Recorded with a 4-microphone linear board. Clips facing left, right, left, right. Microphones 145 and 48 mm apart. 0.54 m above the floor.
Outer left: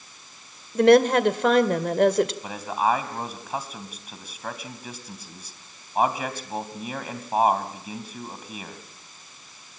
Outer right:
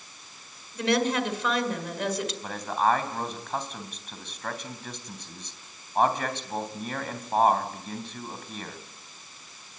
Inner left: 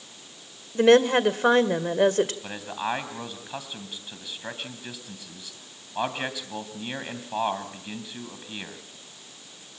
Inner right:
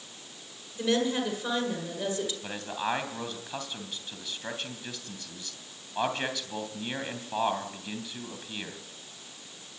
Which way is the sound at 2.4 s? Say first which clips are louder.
Outer left 1 dB, inner left 2 dB; 10° left (ahead or behind).